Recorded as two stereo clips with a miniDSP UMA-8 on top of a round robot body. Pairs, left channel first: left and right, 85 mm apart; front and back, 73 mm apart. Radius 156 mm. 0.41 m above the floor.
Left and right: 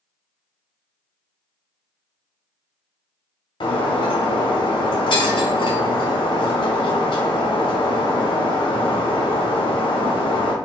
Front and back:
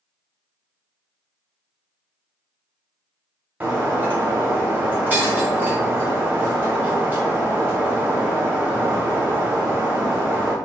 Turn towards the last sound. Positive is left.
turn(degrees=115)